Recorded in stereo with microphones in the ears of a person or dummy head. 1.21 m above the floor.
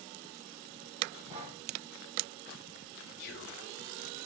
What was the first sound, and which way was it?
Breathing, 35° right (ahead or behind).